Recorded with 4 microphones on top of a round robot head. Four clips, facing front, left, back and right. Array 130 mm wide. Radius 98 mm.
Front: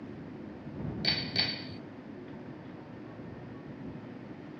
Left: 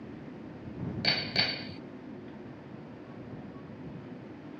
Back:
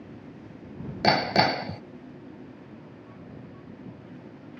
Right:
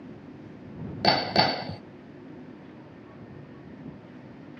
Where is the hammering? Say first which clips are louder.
Right 15 dB, back 16 dB; 145° right.